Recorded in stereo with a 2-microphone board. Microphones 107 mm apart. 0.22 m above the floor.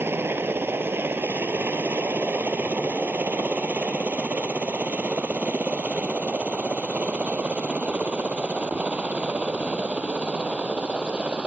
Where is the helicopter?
20° right (ahead or behind); by 11.5 s 10° right (ahead or behind).